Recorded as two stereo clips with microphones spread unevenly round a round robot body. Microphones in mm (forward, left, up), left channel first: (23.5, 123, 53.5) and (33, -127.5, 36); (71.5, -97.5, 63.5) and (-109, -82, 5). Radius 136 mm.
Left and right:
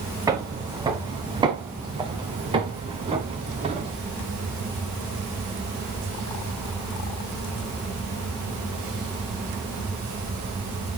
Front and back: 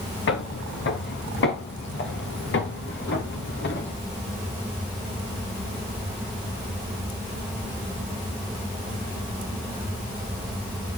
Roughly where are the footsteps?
Ahead.